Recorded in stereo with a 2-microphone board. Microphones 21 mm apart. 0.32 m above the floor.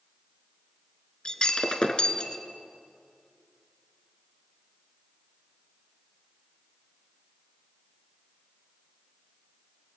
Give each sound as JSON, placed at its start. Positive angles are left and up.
{"t": 1.2, "sound": "breaking glass", "side_deg": 45, "distance_m": 2.0}